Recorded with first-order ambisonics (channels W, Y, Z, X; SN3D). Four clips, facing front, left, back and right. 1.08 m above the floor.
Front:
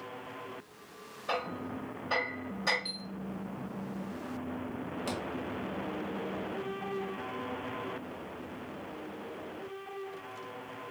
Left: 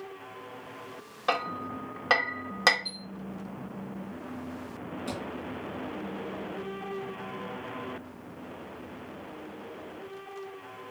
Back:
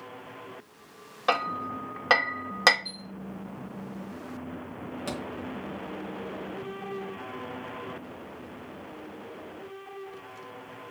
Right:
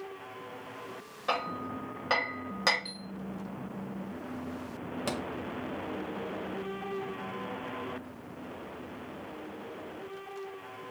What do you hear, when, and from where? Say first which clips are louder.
1.3 s hammering: left 2 dB, back 8 dB; 160° left, 0.7 m
2.9 s a chime: left 4 dB, even; 10° right, 0.7 m
5.1 s a thud: right 3 dB, back 2 dB; 100° right, 1.1 m